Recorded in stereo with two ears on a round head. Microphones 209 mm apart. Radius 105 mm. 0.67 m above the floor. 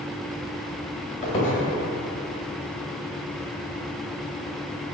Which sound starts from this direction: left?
A squeak, at 1.2 s.